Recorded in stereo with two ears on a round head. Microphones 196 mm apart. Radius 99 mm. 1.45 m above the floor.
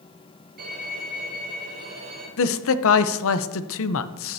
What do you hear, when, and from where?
0.6 s a violin: 50° right (ahead or behind), 4.5 m
2.4 s a man speaking: 75° left (ahead or behind), 0.7 m